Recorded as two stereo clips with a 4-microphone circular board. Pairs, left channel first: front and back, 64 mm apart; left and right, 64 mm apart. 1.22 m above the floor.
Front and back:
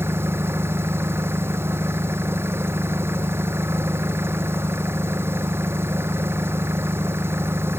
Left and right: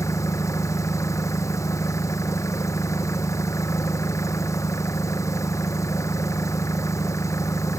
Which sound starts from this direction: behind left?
An engine running, at 0.0 s.